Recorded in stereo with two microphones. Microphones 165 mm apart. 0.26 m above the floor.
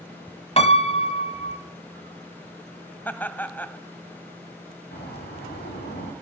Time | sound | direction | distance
0.6 | a piano | 40° left (ahead or behind) | 1.0 m
3.0 | laughter | 10° left (ahead or behind) | 1.2 m
4.9 | a bird | 75° left (ahead or behind) | 9 m